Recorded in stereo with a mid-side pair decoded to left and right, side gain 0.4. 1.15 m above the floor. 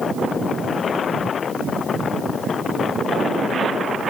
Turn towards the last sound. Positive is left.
No sound to turn to.